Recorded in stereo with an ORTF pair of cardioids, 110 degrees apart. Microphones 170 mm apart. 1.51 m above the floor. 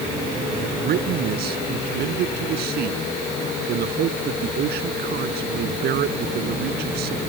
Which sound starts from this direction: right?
A man speaking, at 0.5 s.